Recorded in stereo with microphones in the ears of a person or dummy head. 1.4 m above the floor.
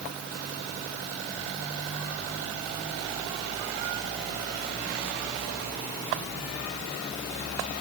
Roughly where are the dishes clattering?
I don't hear dishes clattering.